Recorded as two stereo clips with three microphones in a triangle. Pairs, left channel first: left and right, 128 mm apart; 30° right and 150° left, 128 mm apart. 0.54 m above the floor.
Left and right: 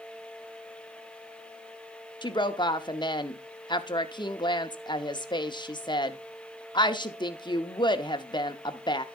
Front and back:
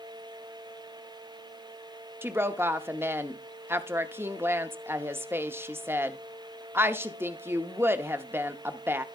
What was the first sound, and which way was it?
A woman speaking, 90° left.